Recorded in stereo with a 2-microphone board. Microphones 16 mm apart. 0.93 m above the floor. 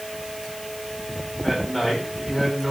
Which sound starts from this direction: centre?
A man speaking, at 1.4 s.